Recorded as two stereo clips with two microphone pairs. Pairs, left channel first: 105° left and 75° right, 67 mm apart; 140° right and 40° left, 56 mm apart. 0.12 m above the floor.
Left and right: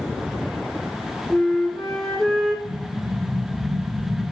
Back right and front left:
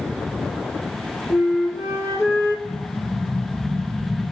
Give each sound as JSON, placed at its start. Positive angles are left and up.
{"t": 1.3, "sound": "a flute", "azimuth_deg": -175, "distance_m": 3.0}
{"t": 2.6, "sound": "an explosion", "azimuth_deg": 5, "distance_m": 1.6}